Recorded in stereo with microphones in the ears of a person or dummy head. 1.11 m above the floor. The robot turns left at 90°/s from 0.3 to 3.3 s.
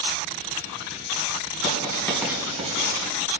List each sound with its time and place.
1.6 s writing: 45° left (ahead or behind), 3 m; by 3.0 s 70° right (ahead or behind), 3 m